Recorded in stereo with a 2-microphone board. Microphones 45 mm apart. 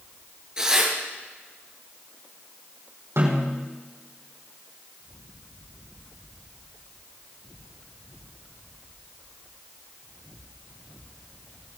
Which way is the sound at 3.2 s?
80° right.